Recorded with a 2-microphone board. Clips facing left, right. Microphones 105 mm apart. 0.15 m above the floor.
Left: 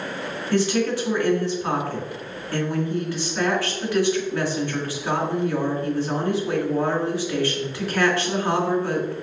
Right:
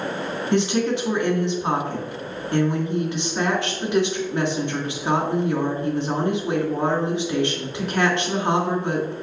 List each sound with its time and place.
0.5 s a woman speaking: 20° right (ahead or behind), 2 m